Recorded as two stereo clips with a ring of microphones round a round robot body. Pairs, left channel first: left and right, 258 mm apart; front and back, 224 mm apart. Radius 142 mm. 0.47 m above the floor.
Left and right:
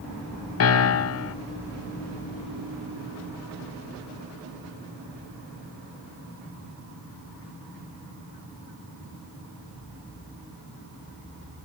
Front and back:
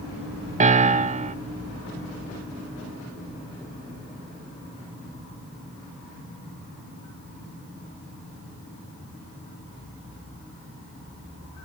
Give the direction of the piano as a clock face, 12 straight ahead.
8 o'clock.